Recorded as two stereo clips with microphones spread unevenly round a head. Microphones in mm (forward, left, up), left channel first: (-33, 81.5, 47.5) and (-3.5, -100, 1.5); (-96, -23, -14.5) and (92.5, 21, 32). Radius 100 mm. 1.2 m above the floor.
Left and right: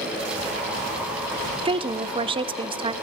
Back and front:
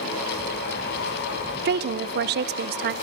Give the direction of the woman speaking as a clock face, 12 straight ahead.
1 o'clock.